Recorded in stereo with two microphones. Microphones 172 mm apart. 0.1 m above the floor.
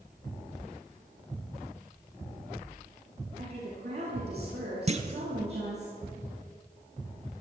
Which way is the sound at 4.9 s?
40° right (ahead or behind).